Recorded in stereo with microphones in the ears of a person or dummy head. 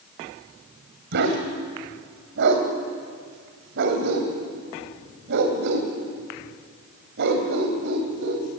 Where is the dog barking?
65° right (ahead or behind), 3 m.